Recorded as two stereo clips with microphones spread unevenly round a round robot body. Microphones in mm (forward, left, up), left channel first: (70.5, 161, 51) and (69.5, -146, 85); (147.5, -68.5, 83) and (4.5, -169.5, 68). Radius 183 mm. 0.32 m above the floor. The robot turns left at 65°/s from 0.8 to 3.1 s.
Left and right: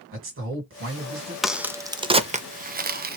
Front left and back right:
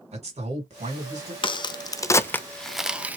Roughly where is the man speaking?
Behind right.